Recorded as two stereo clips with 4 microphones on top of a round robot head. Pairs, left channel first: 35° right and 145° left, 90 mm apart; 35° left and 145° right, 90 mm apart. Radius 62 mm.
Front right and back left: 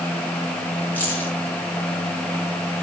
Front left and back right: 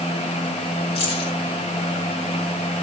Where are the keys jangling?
35° left, 6.5 m.